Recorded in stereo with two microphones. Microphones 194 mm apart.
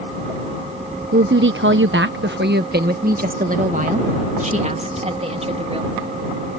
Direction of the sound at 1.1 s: 70° right (ahead or behind).